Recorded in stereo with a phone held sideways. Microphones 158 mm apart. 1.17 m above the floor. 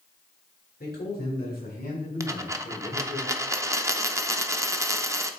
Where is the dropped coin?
20° right (ahead or behind), 0.5 m.